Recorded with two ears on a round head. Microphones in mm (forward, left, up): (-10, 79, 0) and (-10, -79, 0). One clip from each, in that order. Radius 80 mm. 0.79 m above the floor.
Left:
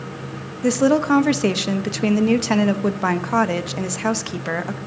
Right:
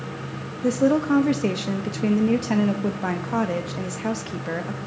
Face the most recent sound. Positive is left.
turn(degrees=35)  # may be behind; listen again after turning